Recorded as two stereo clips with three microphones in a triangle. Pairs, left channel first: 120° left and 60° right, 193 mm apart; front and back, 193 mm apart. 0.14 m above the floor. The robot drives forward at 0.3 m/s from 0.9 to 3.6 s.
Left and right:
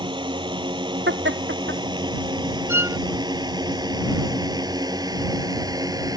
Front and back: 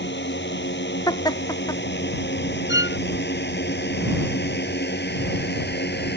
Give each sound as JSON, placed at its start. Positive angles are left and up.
{"t": 0.0, "sound": "a drone", "azimuth_deg": 5}
{"t": 1.1, "sound": "laughter", "azimuth_deg": -70}
{"t": 2.7, "sound": "a violin", "azimuth_deg": 20}